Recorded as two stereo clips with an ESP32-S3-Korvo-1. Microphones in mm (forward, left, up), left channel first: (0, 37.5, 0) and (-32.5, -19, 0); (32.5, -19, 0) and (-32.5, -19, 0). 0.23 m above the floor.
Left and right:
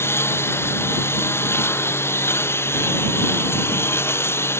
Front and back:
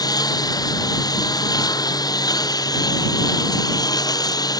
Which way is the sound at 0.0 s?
10° left.